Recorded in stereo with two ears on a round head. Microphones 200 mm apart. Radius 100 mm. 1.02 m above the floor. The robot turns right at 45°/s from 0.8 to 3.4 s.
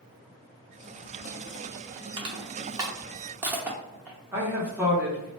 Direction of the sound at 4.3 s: 10° right (ahead or behind).